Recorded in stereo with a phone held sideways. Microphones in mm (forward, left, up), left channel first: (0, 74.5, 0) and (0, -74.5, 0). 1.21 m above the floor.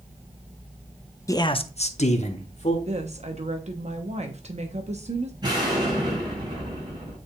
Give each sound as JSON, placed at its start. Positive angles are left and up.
{"t": 1.3, "sound": "a man speaking", "side_deg": 20, "distance_m": 0.6}
{"t": 2.9, "sound": "a woman speaking", "side_deg": -50, "distance_m": 0.9}
{"t": 5.4, "sound": "an explosion", "side_deg": -30, "distance_m": 5.0}